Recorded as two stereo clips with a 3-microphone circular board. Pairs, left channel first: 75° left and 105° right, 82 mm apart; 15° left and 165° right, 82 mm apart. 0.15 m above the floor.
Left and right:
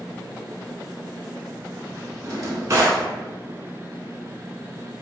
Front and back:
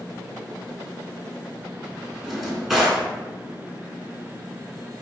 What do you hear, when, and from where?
2.2 s a drawer: 80° right, 0.6 m